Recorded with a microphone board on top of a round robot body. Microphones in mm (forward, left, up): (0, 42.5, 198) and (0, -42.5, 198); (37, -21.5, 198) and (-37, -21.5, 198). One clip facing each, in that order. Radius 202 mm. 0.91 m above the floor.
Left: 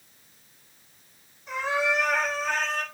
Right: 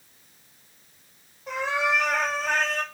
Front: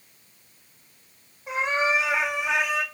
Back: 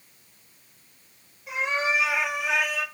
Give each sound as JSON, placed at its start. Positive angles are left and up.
{"t": 1.5, "sound": "a cat meowing", "azimuth_deg": -55, "distance_m": 4.5}